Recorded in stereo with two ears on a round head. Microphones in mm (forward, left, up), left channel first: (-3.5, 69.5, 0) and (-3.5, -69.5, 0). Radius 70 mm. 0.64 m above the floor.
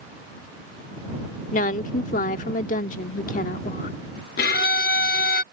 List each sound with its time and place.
1.5 s a woman speaking: 55° left (ahead or behind)
4.4 s a violin: 65° left (ahead or behind)